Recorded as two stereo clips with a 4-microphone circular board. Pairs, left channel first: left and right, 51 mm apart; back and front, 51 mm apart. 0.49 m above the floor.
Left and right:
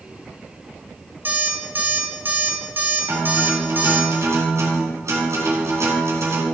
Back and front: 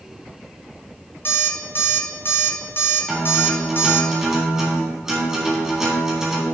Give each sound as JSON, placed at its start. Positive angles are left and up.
{"t": 1.2, "sound": "an alarm clock", "azimuth_deg": -140, "distance_m": 1.8}
{"t": 3.1, "sound": "a guitar", "azimuth_deg": -80, "distance_m": 3.0}